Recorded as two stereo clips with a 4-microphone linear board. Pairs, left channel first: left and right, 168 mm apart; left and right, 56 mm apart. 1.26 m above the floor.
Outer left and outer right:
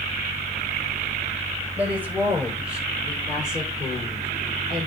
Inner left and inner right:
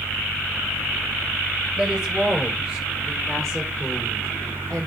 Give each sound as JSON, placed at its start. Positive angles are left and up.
{"t": 1.8, "sound": "a woman speaking", "side_deg": -10, "distance_m": 7.5}